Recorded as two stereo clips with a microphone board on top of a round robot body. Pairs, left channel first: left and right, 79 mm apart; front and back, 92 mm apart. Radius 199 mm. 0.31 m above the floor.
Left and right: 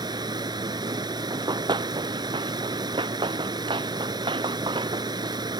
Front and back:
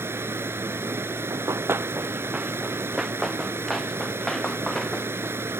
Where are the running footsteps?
130° right; by 5.3 s 85° right.